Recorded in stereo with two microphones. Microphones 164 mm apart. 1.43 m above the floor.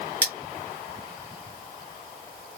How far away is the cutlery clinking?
About 1.3 m.